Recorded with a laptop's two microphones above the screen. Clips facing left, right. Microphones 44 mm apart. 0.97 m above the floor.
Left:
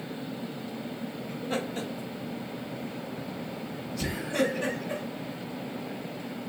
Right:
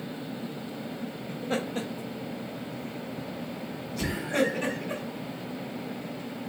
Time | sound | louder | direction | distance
1.3 | laughter | right 2 dB | 25° right (ahead or behind) | 1.1 m